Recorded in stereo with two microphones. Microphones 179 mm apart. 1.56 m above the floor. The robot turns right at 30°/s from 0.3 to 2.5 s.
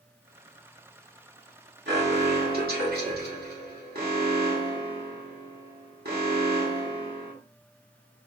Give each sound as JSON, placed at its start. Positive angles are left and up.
{"t": 1.9, "sound": "an alarm", "side_deg": -80, "distance_m": 1.5}